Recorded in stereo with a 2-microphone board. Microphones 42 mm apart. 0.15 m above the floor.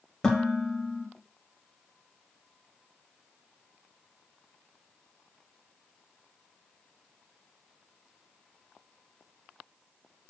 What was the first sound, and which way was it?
Dishes clattering, 10° left (ahead or behind).